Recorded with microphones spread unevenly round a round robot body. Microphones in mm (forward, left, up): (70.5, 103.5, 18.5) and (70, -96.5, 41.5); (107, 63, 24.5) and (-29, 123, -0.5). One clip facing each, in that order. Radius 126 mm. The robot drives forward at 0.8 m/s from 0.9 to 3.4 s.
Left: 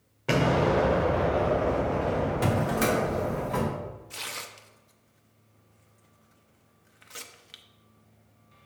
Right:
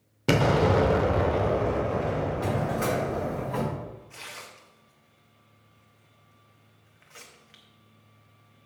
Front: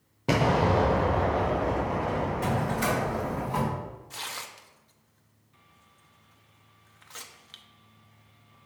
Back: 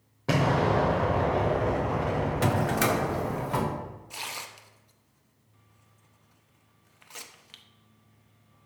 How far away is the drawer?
About 0.7 m.